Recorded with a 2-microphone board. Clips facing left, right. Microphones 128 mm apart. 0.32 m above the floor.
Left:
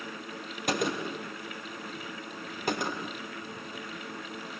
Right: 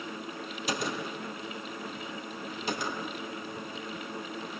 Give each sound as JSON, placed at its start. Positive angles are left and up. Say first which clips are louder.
{"t": 0.7, "sound": "a gunshot", "louder": "left 4 dB", "side_deg": 50, "distance_m": 3.0}